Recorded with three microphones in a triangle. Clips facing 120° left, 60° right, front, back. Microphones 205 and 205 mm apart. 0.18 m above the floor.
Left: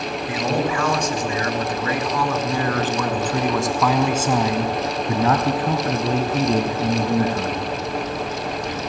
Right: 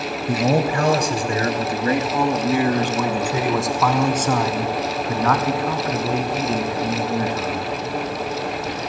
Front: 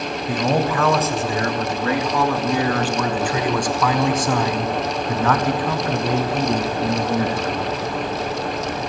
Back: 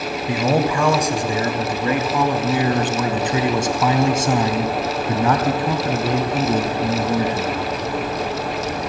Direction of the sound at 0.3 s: 100° right.